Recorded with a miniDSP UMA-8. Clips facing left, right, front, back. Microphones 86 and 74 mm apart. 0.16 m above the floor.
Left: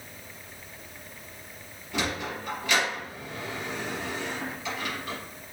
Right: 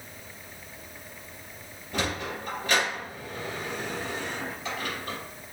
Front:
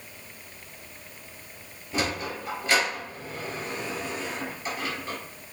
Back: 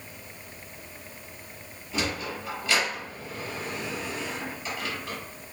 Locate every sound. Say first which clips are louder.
1.9 s a sliding door: even, front 2 dB; 45° right, 3.5 m